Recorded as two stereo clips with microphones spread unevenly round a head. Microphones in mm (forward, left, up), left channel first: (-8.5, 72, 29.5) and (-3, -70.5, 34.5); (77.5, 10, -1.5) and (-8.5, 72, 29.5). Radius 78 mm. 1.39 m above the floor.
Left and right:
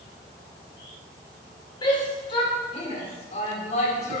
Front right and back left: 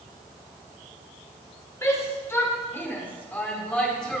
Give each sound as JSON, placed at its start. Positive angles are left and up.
{"t": 1.8, "sound": "a shout", "azimuth_deg": 30, "distance_m": 5.0}